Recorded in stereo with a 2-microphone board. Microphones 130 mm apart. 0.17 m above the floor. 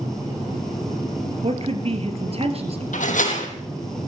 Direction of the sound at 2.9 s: 80° left.